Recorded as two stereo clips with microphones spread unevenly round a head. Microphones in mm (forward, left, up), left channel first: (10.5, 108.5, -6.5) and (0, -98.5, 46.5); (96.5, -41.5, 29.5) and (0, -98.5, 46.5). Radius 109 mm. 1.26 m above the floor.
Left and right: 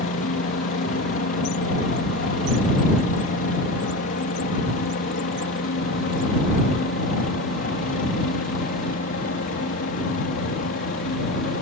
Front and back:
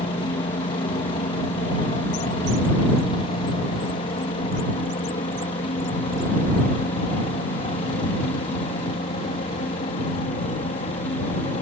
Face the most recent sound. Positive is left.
turn(degrees=55)